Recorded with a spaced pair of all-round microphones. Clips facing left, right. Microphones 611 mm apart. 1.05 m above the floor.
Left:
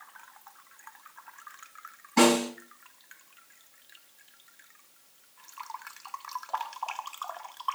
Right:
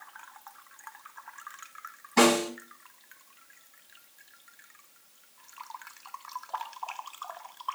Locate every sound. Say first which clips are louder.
2.2 s a snare drum: left 1 dB; 5° right (ahead or behind), 8.5 m